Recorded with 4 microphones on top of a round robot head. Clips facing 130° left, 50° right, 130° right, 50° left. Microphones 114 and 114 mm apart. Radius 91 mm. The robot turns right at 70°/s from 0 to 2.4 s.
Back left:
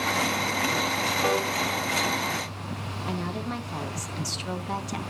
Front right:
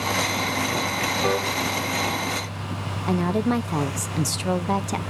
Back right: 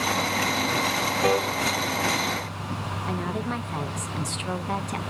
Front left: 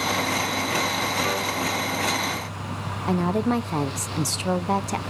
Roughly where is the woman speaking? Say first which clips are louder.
Front right 10 dB, front left 8 dB; ahead.